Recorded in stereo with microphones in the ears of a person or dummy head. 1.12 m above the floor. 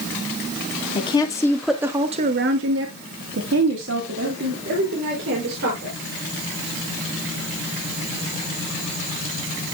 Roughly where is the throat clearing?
No throat clearing in this recording.